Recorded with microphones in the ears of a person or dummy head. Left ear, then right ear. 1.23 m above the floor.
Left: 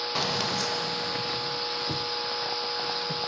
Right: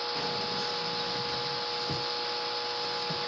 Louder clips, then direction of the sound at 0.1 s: Left 4 dB; 55° left (ahead or behind).